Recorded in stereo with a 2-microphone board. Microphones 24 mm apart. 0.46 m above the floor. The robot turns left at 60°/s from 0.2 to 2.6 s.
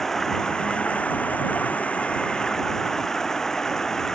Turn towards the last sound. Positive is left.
turn(degrees=25)